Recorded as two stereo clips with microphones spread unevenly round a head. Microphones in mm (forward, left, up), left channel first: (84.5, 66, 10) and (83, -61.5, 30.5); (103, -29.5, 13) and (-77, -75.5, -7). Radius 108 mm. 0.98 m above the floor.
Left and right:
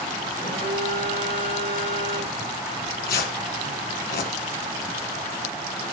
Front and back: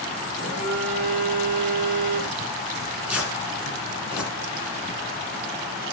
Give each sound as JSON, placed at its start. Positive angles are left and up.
{"t": 0.3, "sound": "a phone buzzing", "azimuth_deg": -130, "distance_m": 5.0}
{"t": 2.7, "sound": "tearing paper", "azimuth_deg": 105, "distance_m": 1.9}